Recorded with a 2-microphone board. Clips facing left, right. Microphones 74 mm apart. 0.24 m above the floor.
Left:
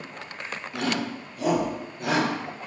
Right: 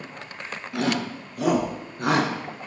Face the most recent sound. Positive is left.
turn(degrees=-55)  # may be behind; listen again after turning